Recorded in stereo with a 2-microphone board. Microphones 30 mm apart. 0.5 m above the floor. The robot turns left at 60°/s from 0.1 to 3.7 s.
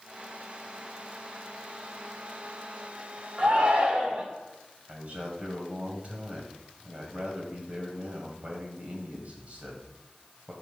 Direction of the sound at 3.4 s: 30° right (ahead or behind).